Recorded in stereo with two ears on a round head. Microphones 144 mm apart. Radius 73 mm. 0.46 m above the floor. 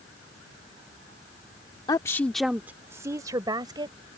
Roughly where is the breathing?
No breathing in this recording.